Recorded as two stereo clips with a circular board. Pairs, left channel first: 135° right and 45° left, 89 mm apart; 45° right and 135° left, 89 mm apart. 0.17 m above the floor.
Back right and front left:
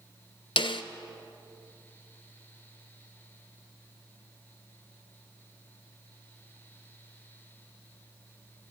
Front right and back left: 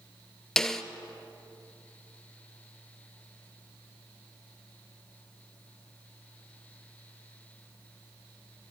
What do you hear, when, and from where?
0.6 s a snare drum: 130° right, 0.6 m